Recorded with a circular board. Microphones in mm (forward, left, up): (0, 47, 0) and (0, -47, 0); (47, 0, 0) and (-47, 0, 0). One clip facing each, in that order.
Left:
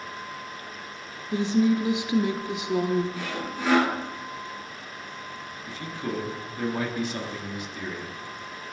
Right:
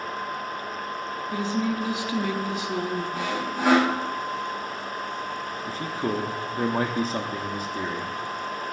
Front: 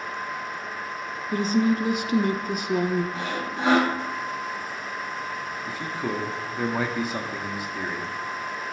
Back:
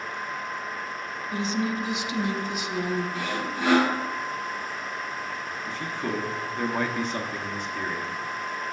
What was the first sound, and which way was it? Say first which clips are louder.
A woman speaking: left 5 dB, front 6 dB; 25° left.